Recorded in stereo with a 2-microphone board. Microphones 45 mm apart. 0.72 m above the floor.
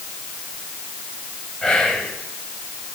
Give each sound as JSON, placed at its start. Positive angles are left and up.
{"t": 1.6, "sound": "whispering", "side_deg": 10, "distance_m": 3.5}